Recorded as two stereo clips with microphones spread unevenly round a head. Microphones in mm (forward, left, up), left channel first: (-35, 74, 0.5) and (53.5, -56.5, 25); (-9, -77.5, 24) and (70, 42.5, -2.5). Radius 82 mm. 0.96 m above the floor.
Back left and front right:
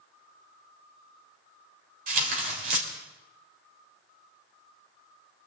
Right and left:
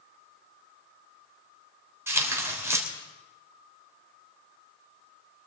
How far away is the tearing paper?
About 3.5 m.